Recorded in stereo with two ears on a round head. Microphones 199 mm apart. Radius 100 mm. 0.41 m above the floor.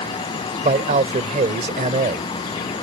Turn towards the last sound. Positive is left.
turn(degrees=-35)  # may be behind; listen again after turning